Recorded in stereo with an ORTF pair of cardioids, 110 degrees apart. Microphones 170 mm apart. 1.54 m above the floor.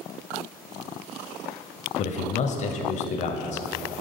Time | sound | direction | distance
2.0 | a man speaking | 45° left | 0.5 m